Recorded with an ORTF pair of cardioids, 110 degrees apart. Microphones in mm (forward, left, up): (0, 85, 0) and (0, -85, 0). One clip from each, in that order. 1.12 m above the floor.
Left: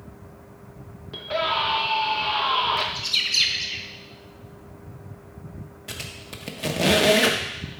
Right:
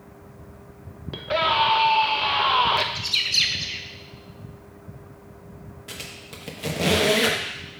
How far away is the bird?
About 0.6 m.